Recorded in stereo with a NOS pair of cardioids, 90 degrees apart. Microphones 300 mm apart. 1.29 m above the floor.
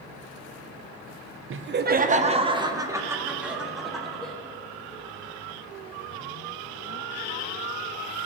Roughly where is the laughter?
Ahead right.